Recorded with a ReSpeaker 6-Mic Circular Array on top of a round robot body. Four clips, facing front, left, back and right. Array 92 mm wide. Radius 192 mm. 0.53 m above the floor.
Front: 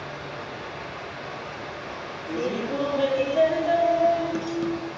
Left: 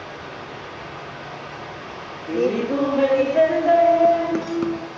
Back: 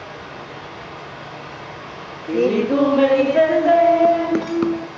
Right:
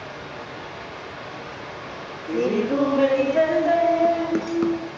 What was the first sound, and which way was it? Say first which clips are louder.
Running water: left 1 dB, back 1 dB; straight behind.